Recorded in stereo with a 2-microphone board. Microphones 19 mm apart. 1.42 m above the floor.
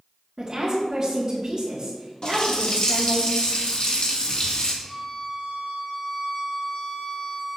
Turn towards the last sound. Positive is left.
turn(degrees=40)  # may be behind; listen again after turning